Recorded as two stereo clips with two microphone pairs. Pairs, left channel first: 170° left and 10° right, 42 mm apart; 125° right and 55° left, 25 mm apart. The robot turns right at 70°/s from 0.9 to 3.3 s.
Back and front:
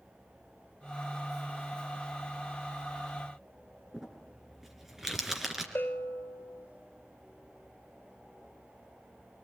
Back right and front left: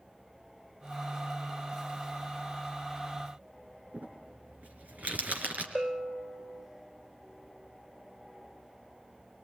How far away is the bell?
About 1.0 m.